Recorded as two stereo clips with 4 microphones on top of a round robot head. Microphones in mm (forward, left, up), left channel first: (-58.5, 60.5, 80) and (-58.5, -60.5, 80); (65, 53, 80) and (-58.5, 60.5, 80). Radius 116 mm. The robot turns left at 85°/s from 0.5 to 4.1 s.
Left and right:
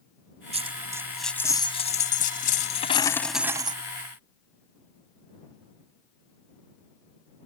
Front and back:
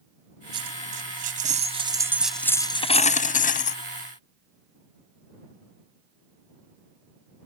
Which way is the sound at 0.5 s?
120° right.